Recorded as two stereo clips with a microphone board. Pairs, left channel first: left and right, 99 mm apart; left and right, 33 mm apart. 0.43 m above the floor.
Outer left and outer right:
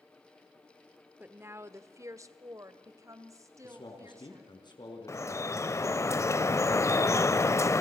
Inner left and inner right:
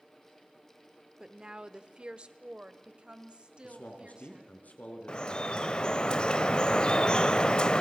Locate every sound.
1.2 s a woman speaking: 15° right (ahead or behind), 0.9 m; by 4.5 s 30° right (ahead or behind), 3.5 m
3.6 s a man speaking: 50° left (ahead or behind), 4.5 m
5.1 s dripping: 30° left (ahead or behind), 0.6 m